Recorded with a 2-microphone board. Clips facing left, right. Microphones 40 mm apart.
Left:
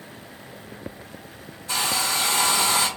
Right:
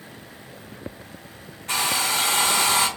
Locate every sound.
1.7 s a hair dryer: 60° right (ahead or behind), 1.1 m